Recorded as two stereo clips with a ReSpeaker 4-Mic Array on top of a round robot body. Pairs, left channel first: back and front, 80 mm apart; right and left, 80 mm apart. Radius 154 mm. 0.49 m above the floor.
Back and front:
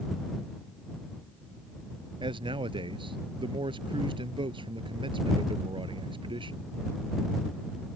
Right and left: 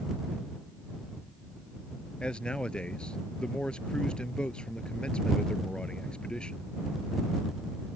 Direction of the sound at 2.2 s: 10° right.